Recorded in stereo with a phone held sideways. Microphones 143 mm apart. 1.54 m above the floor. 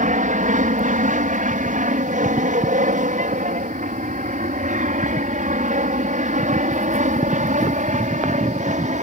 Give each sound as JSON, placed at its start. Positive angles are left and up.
{"t": 0.0, "sound": "an aircraft", "side_deg": -65}